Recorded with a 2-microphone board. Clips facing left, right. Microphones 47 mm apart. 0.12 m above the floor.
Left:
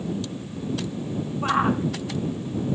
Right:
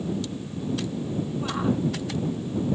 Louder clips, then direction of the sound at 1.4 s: Left 6 dB; 50° left (ahead or behind).